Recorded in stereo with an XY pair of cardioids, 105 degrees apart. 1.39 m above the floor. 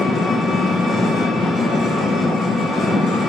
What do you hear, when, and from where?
0.0 s an engine running: 55° left, 1.1 m